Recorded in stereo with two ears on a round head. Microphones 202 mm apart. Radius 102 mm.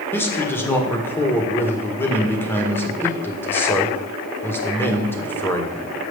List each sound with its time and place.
0.1 s a man speaking: 10° left (ahead or behind), 1.8 m